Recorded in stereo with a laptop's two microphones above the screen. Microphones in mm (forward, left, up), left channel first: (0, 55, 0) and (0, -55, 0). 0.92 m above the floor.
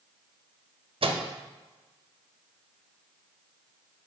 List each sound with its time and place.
1.0 s a microwave: 55° right (ahead or behind), 0.5 m